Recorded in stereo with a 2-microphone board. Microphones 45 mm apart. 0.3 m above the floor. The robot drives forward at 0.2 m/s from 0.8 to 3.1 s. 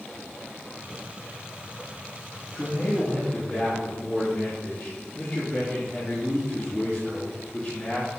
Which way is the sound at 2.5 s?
25° left (ahead or behind).